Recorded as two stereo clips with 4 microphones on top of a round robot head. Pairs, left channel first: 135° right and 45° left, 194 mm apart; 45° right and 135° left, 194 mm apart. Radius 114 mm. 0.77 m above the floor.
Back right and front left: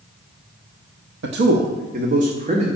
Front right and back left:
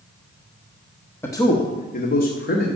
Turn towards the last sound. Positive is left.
turn(degrees=-10)